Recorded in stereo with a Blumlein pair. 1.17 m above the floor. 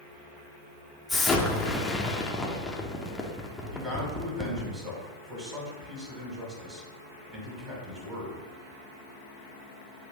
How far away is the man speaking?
About 2 m.